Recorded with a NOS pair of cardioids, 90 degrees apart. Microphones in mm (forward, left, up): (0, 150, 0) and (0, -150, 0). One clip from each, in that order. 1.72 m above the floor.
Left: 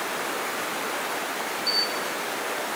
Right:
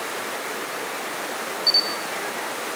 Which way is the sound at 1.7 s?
35° right.